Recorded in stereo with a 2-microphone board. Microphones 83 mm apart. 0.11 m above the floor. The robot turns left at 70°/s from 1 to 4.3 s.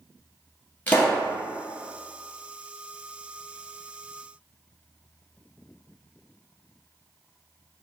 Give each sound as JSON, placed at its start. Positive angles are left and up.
{"t": 0.9, "sound": "a pop", "side_deg": 20, "distance_m": 1.6}